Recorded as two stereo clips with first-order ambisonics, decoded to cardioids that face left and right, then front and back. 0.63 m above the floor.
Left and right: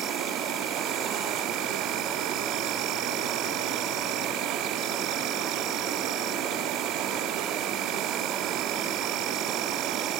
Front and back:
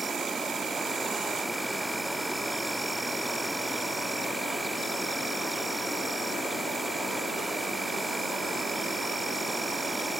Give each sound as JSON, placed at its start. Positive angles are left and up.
{"t": 0.0, "sound": "an insect", "azimuth_deg": -100, "distance_m": 0.9}